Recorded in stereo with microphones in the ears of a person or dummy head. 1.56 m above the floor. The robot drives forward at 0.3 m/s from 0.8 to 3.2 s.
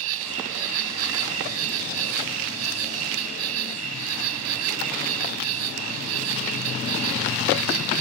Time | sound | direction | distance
0.0 | an insect | 80° right | ?